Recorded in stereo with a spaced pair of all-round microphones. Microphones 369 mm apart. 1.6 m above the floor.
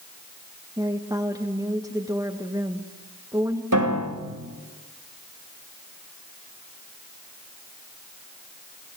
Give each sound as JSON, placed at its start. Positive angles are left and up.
{"t": 0.8, "sound": "a woman speaking", "side_deg": -10, "distance_m": 1.6}
{"t": 3.7, "sound": "a piano", "side_deg": -55, "distance_m": 3.5}